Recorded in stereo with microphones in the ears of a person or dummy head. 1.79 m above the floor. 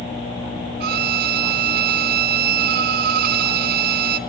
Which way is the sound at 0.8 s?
50° right (ahead or behind).